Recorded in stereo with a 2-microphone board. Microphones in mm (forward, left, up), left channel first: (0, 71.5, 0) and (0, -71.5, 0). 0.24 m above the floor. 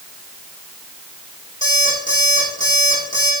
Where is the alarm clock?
65° left (ahead or behind), 5.5 m.